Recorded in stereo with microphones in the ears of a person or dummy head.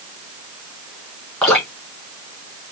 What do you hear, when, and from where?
1.4 s dripping: 5° left (ahead or behind), 3 m